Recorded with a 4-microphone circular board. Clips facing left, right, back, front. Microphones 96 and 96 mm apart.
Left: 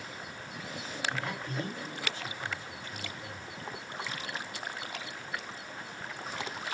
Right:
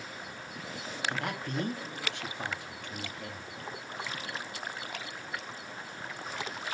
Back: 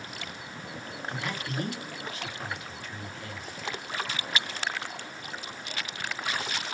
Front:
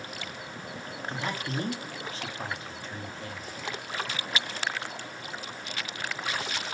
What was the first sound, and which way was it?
A man speaking, 65° right.